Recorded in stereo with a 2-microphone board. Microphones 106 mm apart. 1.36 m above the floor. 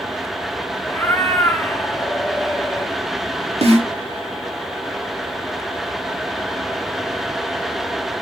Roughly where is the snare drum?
Right.